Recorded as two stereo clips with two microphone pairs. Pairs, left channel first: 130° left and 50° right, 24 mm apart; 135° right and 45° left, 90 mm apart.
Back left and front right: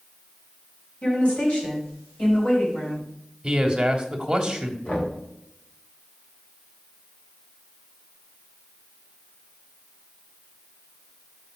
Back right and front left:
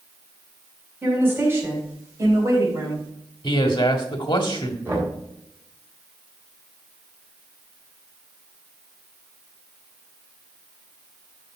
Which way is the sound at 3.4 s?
105° right.